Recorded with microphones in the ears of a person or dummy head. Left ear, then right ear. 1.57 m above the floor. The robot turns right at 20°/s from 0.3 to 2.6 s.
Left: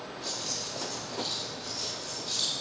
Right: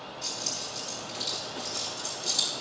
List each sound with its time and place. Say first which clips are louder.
0.2 s keys jangling: right 1 dB; 30° right (ahead or behind), 4 m; by 2.5 s 75° right (ahead or behind), 4 m